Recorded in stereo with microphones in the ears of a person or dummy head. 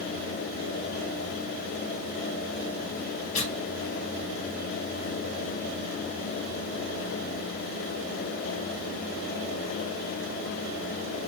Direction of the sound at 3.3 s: 45° left (ahead or behind).